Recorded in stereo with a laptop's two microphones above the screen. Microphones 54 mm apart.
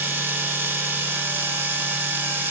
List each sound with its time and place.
0.0 s a machine running: 40° right (ahead or behind), 0.7 m